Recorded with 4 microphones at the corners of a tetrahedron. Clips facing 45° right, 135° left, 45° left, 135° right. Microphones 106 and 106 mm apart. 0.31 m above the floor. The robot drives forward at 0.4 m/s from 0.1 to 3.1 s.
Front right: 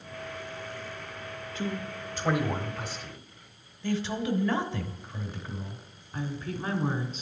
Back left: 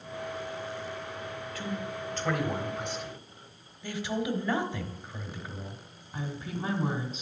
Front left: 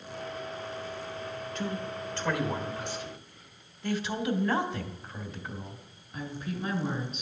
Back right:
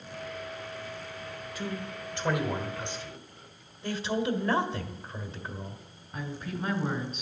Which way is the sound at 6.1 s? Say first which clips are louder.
Front right 2 dB, even; 160° right.